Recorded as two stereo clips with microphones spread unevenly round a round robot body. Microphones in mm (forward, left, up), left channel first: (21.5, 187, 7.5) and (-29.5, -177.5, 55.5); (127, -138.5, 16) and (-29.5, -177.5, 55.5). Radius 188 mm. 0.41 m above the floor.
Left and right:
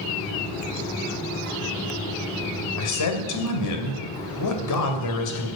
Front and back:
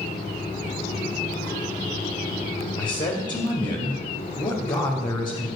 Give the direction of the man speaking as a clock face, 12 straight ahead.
10 o'clock.